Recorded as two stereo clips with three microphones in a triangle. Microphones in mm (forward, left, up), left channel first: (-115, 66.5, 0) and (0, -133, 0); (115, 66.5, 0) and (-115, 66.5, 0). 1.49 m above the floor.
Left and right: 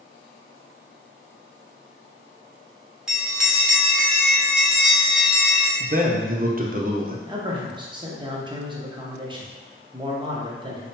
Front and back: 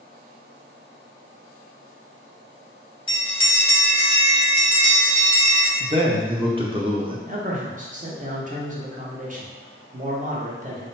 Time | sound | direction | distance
3.1 | a bell | 25° left | 0.9 m
5.8 | a man speaking | 115° right | 0.7 m
7.2 | a man speaking | 130° right | 0.8 m